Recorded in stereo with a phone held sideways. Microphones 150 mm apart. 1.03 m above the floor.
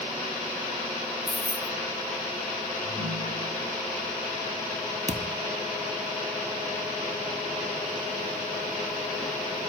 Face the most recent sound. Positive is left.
turn(degrees=-50)  # may be behind; listen again after turning